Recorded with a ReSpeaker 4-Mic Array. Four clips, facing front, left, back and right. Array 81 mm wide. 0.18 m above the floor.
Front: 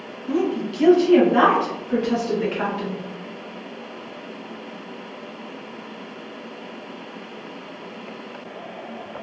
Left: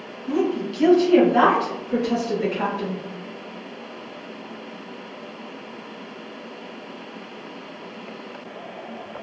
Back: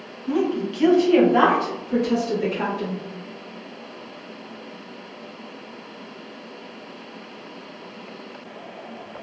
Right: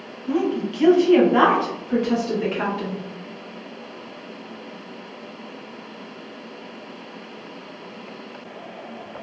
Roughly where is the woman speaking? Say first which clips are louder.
Even, even; behind right.